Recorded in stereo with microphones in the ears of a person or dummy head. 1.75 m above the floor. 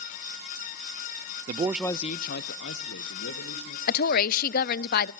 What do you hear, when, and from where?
1.5 s a man speaking: 40° right (ahead or behind), 0.6 m; by 3.8 s 80° left, 2.5 m
3.9 s a woman speaking: 55° left (ahead or behind), 0.7 m